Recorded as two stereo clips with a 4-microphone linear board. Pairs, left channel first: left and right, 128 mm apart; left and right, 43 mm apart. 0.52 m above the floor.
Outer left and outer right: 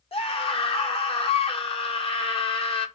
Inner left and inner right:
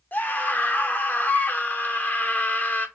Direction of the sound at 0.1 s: 45° left (ahead or behind).